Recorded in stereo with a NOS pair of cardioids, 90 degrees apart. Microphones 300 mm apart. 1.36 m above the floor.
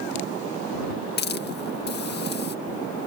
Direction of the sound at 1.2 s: 35° left.